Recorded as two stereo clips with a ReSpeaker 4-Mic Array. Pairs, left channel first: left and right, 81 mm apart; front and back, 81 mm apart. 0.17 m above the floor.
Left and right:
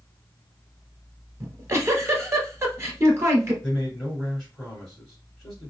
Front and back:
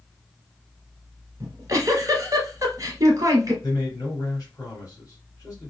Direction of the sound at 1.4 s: 140° right.